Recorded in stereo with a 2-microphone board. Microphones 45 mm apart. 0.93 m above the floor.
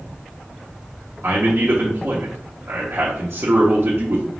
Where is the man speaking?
55° right (ahead or behind), 1.0 m.